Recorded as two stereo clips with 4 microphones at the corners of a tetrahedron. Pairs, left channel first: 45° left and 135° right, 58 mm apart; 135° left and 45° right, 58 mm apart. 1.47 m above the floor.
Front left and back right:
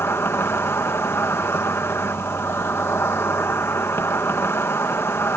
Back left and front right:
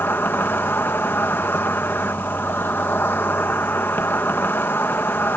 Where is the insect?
85° left.